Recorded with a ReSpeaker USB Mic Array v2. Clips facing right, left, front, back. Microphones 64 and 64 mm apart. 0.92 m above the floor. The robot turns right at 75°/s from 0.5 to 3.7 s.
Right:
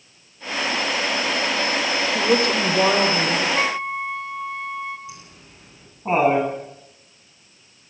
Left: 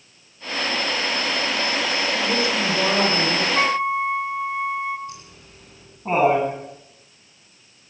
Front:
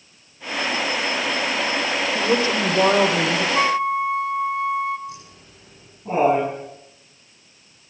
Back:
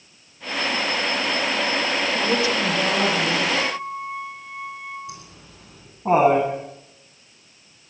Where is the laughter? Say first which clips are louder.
Left 2 dB, front 1 dB; 170° right, 9.5 m.